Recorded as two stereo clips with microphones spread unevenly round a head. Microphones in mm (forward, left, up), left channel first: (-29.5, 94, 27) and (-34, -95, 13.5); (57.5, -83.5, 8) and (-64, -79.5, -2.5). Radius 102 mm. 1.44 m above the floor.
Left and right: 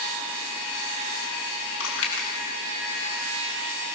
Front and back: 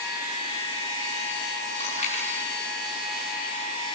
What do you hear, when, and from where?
1.8 s chewing: 60° left, 6.5 m